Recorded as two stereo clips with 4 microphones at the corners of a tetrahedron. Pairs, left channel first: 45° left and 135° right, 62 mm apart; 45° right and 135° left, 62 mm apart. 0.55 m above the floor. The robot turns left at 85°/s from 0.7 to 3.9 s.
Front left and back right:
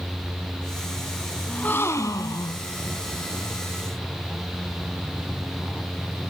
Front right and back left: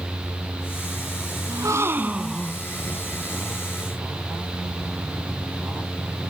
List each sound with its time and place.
1.5 s a gasp: 120° left, 1.1 m; by 2.6 s 20° left, 1.1 m